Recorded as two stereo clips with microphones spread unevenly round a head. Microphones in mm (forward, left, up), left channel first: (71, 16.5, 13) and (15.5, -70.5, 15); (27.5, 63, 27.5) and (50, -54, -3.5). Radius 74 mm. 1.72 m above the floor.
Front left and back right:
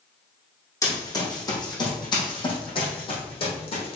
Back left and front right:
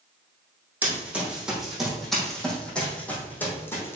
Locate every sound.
0.8 s running footsteps: 5° left, 4 m; by 4.0 s 40° left, 4 m